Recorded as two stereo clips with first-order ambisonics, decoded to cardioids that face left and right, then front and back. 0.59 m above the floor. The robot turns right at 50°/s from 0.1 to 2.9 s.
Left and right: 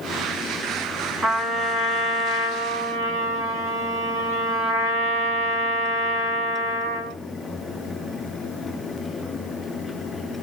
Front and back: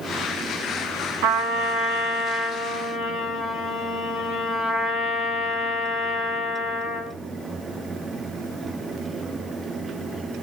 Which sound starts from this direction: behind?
A trumpet, at 1.2 s.